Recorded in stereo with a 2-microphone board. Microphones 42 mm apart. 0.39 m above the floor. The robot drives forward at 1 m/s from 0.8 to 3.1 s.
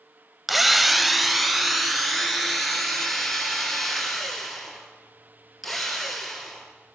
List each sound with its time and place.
0.5 s a drill: centre (ahead or behind), 0.6 m